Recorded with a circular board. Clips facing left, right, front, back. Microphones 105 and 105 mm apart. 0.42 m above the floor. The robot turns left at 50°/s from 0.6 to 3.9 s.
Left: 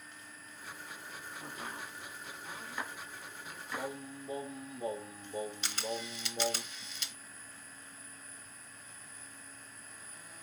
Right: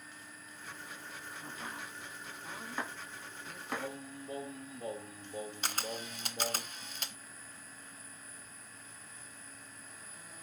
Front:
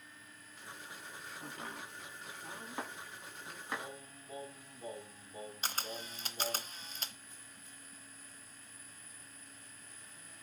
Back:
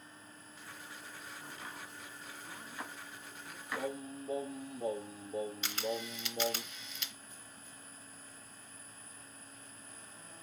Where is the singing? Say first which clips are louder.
Left 5 dB, back 8 dB; 175° left, 3 m; by 6.6 s 170° left, 3 m.